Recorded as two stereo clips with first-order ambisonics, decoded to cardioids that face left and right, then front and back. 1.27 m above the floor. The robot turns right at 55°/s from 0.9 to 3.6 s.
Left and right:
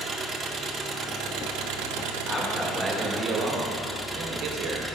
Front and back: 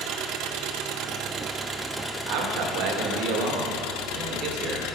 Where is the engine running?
150° right, 0.8 m; by 5.0 s 5° right, 0.8 m.